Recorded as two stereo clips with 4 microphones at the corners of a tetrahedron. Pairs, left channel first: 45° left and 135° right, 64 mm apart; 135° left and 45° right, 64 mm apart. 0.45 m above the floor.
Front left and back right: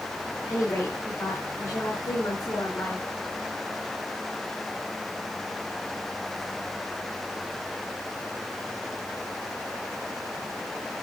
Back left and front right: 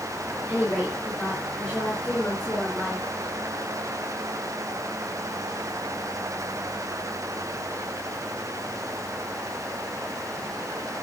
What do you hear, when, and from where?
0.5 s a woman speaking: 65° left, 4 m